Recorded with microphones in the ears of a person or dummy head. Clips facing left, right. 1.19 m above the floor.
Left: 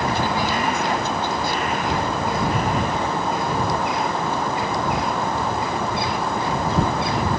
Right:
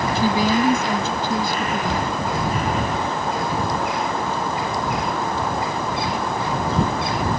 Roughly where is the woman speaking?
Right.